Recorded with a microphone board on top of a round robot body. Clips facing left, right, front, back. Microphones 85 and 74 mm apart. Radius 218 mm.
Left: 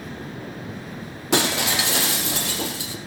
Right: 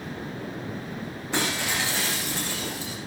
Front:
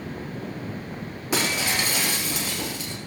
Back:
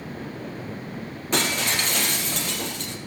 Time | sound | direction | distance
1.3 | breaking glass | 80° left | 4.5 m